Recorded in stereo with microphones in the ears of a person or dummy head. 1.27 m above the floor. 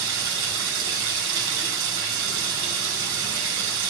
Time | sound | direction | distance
0.0 | running water | 70° right (ahead or behind) | 7.5 m